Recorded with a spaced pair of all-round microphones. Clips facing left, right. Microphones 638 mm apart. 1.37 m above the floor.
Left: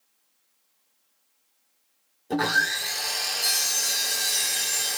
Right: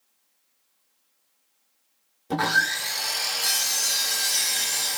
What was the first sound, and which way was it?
Sawing, 35° right (ahead or behind).